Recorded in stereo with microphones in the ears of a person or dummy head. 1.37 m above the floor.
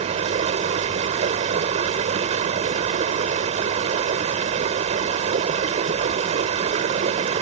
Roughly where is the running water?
Right.